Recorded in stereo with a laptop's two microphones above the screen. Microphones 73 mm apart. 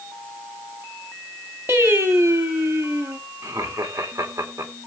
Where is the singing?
30° right (ahead or behind), 1.3 m.